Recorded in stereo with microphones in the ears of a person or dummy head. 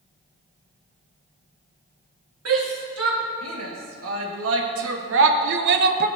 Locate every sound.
2.5 s a shout: 85° right, 4 m; by 6.1 s 50° right (ahead or behind), 1.1 m